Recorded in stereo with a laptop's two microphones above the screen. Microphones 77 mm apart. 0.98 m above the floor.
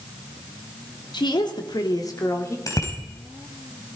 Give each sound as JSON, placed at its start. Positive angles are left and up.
{"t": 1.1, "sound": "a woman speaking", "side_deg": 75, "distance_m": 2.5}
{"t": 2.7, "sound": "a bicycle bell", "side_deg": 45, "distance_m": 4.0}